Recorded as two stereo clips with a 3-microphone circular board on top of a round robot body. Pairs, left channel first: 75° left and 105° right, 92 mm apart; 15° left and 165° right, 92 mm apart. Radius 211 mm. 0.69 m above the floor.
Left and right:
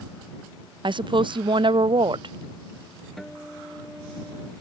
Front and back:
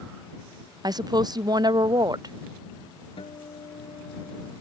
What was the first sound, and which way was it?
A woman speaking, 125° right.